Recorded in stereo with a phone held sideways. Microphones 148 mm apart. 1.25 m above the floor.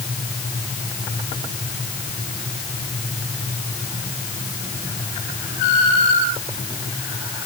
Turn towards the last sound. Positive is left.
No sound to turn to.